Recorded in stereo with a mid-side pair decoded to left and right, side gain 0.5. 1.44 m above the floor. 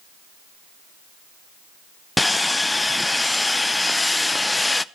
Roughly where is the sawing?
Ahead.